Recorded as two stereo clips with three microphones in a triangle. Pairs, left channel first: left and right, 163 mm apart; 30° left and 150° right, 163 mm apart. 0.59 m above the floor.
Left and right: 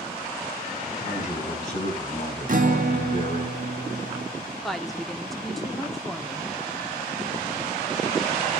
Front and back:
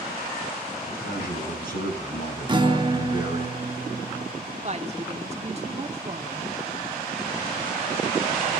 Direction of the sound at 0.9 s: 50° left.